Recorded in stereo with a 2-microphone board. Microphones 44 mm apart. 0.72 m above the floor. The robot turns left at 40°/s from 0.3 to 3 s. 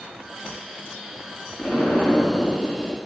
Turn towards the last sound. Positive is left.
turn(degrees=115)